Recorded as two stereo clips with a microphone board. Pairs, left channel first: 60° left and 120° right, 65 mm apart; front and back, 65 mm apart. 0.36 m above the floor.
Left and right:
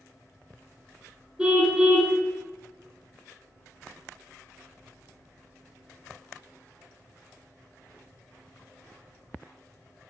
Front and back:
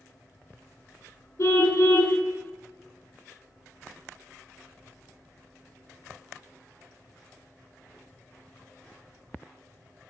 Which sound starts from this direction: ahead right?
A car horn, at 1.4 s.